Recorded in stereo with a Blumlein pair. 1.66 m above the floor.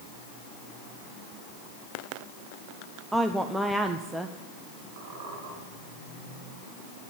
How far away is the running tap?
I don't hear a running tap.